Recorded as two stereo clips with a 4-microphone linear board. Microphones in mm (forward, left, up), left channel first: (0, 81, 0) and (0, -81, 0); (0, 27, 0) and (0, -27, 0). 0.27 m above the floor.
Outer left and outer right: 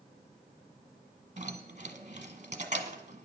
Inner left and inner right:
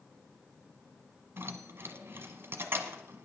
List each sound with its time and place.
1.4 s keys jangling: 45° right (ahead or behind), 1.2 m